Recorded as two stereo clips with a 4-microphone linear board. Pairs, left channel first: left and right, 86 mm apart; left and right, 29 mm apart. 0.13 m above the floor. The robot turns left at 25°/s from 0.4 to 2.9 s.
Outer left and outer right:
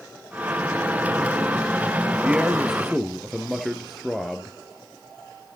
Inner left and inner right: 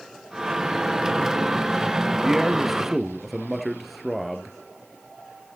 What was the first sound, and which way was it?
A man speaking, 15° right (ahead or behind).